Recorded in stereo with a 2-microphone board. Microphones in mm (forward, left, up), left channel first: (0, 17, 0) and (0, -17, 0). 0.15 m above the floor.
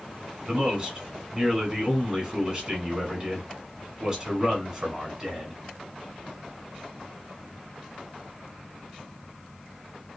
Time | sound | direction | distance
0.5 | a man speaking | 20° right (ahead or behind) | 1.3 m